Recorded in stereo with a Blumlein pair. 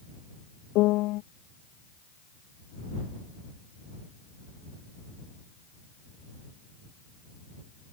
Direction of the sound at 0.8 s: 40° left.